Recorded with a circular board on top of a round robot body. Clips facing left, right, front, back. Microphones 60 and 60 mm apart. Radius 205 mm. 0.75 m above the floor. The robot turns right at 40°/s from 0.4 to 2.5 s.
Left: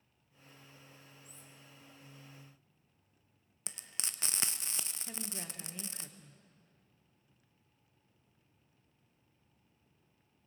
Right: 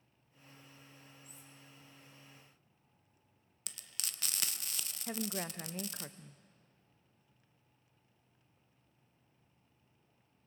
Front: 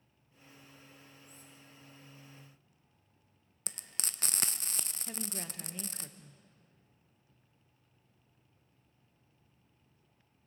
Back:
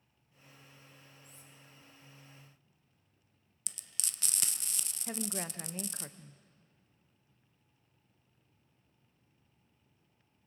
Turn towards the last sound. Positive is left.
turn(degrees=-130)